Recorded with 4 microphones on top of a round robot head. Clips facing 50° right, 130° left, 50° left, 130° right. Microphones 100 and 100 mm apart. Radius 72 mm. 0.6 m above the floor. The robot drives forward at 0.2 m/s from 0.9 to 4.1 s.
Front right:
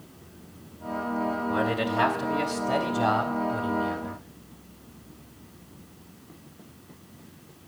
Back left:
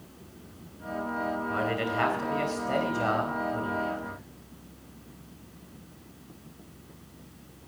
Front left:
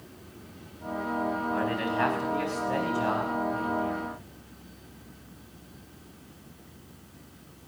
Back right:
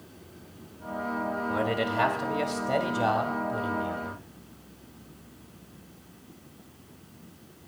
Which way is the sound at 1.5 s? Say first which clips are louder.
Front right 4 dB, back right 1 dB; 120° right.